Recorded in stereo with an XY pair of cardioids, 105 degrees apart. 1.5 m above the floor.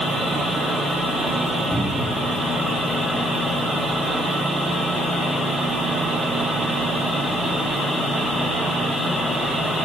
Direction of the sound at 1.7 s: 20° left.